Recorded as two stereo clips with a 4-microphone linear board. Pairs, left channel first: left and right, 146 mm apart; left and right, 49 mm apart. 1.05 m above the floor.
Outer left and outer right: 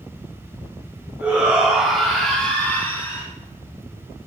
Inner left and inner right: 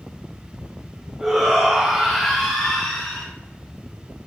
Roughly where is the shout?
Centre.